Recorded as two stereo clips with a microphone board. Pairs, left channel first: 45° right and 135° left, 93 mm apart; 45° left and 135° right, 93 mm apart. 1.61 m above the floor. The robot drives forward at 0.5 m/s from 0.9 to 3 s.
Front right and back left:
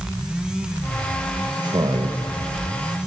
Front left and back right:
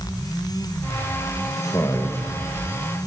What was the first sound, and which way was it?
A man speaking, 95° left.